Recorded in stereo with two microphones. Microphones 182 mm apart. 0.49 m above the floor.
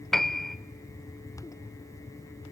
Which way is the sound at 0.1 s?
Centre (ahead or behind).